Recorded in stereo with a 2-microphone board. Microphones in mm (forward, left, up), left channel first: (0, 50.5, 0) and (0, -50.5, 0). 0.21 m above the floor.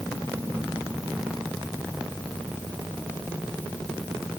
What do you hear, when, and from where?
Only background noise.